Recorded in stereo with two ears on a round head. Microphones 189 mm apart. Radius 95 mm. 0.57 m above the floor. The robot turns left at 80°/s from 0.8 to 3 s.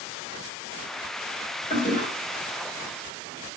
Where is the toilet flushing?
140° left, 1.9 m; by 2.1 s 110° left, 1.9 m.